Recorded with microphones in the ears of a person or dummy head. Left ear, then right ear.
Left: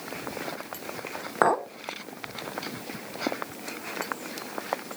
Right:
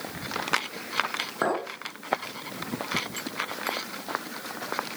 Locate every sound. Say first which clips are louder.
1.4 s a clink: left 6 dB; 25° left (ahead or behind), 0.9 m